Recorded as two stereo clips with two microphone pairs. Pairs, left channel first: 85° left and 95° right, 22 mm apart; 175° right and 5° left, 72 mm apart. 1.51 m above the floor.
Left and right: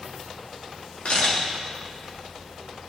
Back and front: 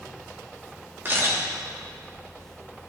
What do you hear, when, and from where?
1.1 s a camera shutter: 60° left, 3 m